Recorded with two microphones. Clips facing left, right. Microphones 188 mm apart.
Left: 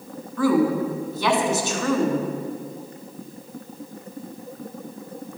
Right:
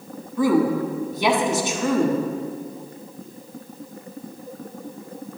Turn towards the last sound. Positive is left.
turn(degrees=-20)  # may be behind; listen again after turning